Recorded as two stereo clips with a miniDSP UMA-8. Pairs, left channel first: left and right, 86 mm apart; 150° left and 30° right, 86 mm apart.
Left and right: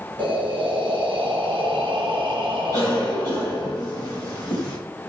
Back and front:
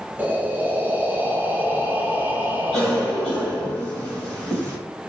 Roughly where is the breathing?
Right.